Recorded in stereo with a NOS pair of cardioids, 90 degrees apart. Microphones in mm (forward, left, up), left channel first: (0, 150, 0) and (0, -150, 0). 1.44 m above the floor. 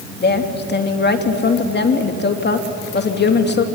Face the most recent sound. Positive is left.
turn(degrees=35)